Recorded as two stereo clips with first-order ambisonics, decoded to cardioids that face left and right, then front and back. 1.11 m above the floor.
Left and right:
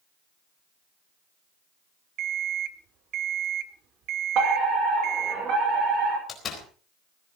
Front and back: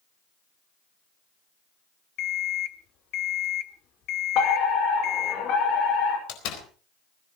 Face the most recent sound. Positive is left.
turn(degrees=25)